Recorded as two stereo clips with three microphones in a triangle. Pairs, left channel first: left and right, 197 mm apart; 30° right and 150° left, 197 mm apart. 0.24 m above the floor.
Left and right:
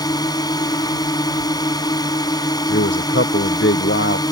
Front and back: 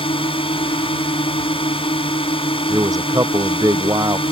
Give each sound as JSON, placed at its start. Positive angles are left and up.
{"t": 0.0, "sound": "a drone", "azimuth_deg": 25}
{"t": 2.7, "sound": "a man speaking", "azimuth_deg": 75}